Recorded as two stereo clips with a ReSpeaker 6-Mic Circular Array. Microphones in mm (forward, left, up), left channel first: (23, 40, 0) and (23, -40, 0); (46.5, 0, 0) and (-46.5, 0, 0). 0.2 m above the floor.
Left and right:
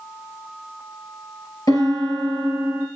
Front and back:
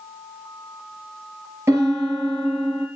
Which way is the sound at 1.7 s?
120° left.